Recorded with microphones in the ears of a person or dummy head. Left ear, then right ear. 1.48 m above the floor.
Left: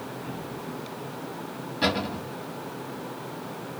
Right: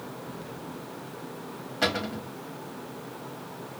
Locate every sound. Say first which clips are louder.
1.8 s a cupboard door: left 1 dB; 40° right (ahead or behind), 2 m